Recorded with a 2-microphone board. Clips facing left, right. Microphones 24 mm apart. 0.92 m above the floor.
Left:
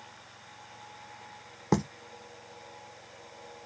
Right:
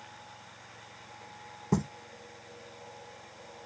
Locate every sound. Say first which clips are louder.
1.7 s writing: left 2 dB; 55° left (ahead or behind), 0.9 m